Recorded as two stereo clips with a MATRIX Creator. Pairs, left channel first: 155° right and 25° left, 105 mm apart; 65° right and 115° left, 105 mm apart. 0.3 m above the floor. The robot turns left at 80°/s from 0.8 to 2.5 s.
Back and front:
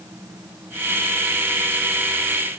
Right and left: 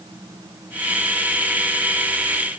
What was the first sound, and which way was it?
Only background noise.